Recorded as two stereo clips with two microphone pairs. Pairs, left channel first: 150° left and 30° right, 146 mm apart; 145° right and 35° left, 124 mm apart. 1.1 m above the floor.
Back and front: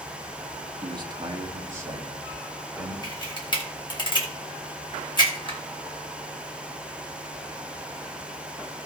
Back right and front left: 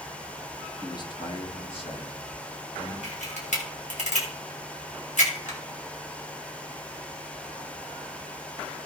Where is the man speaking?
85° right, 1.4 m; by 2.9 s 110° right, 3.5 m.